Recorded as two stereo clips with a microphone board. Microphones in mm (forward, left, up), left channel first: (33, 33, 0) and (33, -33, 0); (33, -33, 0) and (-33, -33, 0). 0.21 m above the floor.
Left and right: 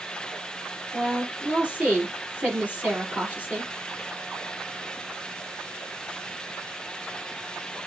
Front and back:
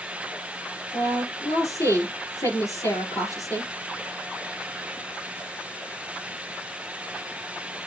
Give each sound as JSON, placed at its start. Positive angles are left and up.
{"t": 0.9, "sound": "a woman speaking", "azimuth_deg": -25, "distance_m": 5.0}